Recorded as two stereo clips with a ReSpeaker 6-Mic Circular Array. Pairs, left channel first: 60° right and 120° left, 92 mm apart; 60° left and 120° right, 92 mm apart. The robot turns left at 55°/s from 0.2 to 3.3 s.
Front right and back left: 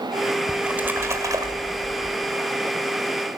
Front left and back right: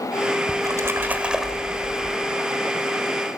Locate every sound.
0.5 s a splash: 155° right, 1.7 m; by 2.2 s 115° left, 1.7 m